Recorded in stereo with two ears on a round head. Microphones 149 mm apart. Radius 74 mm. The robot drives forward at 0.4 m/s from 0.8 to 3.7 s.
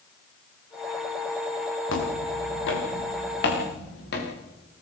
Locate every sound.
1.9 s footsteps: 80° left, 7.5 m; by 4.3 s 65° left (ahead or behind), 8.5 m